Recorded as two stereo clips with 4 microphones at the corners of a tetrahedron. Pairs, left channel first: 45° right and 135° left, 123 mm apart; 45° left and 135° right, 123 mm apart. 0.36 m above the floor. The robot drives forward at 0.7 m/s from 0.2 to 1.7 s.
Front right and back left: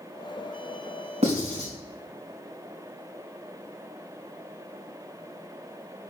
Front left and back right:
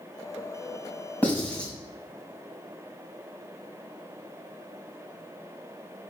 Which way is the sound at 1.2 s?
120° left.